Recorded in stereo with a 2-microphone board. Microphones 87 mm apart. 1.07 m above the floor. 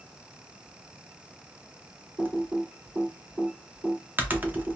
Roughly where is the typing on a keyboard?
Right.